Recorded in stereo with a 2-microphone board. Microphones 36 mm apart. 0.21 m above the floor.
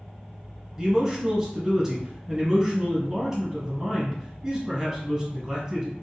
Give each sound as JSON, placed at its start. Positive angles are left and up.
{"t": 0.8, "sound": "a man speaking", "side_deg": -10, "distance_m": 1.3}